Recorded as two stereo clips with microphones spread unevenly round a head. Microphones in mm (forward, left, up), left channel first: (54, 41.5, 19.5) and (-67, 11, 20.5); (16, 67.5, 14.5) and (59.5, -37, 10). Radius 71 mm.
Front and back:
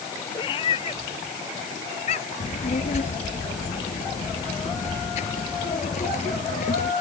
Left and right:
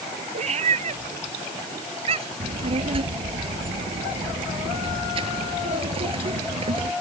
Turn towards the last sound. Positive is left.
turn(degrees=-30)